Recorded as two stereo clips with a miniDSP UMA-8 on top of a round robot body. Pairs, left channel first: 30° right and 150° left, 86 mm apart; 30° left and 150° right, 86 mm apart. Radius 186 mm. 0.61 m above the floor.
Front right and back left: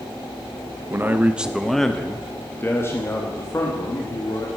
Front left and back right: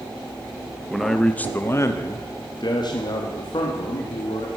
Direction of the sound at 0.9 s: 125° left.